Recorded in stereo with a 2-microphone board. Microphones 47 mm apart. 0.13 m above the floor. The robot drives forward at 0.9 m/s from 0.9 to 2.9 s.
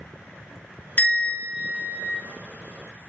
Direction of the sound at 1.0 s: 35° left (ahead or behind).